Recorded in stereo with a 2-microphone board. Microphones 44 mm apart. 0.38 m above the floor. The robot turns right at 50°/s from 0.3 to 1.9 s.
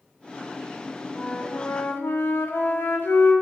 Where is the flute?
30° left, 1.1 m; by 3.3 s 70° left, 1.1 m.